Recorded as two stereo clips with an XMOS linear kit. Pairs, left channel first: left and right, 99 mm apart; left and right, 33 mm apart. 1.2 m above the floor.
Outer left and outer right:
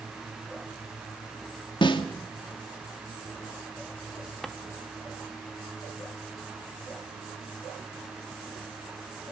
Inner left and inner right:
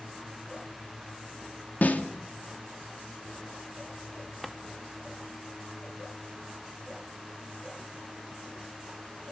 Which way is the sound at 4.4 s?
Centre (ahead or behind).